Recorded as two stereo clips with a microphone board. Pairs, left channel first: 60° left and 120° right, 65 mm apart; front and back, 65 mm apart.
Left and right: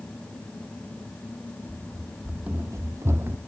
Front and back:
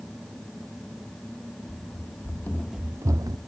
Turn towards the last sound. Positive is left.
turn(degrees=-175)